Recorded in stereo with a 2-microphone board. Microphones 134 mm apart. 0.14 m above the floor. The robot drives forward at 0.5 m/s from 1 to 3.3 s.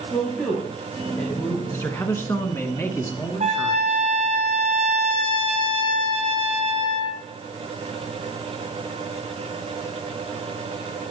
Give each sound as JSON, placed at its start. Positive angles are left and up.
{"t": 0.1, "sound": "a man speaking", "side_deg": 10, "distance_m": 4.5}
{"t": 1.7, "sound": "a man speaking", "side_deg": 20, "distance_m": 1.2}
{"t": 3.4, "sound": "a trumpet", "side_deg": -65, "distance_m": 1.8}